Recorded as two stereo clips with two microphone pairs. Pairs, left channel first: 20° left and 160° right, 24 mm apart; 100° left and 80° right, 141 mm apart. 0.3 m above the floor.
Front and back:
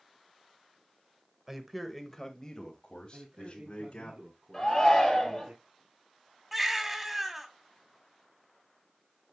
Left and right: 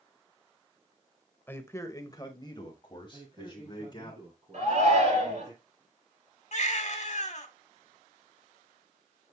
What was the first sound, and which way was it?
A man speaking, 155° left.